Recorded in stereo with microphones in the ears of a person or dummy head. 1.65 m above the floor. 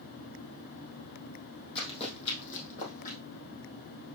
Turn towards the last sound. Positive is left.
turn(degrees=50)  # may be behind; listen again after turning